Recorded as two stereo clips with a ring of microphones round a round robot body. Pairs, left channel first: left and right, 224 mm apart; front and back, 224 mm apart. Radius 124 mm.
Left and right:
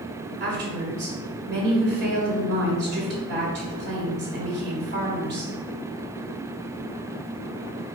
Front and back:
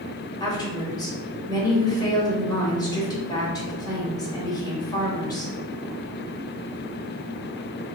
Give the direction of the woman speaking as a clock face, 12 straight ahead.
2 o'clock.